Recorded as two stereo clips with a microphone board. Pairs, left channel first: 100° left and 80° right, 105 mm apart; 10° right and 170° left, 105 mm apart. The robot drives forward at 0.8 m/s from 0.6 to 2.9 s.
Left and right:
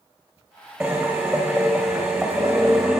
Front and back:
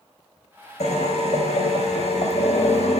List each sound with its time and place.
0.8 s a drill: 5° left, 8.5 m